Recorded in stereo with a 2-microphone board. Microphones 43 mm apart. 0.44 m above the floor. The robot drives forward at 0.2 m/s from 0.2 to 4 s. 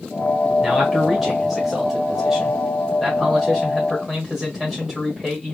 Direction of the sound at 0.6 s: 5° right (ahead or behind).